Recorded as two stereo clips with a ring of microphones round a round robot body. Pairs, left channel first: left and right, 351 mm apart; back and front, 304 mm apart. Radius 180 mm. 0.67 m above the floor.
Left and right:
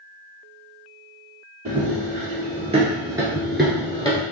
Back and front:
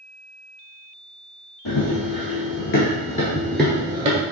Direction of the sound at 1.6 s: 155° right.